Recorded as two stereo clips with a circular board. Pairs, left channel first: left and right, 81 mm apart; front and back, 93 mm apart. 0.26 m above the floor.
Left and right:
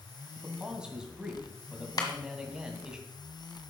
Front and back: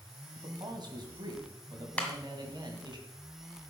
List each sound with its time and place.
0.3 s a man speaking: 170° right, 2 m
2.0 s a clap: 75° left, 1.9 m